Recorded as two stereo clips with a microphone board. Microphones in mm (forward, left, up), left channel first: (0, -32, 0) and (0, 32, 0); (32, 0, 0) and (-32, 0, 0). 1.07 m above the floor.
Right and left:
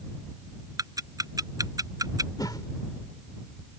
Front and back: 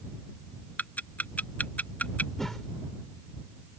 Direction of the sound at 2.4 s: 85° right.